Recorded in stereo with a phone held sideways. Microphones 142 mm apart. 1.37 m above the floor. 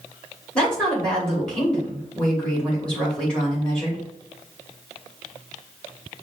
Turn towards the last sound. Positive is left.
turn(degrees=5)  # may be behind; listen again after turning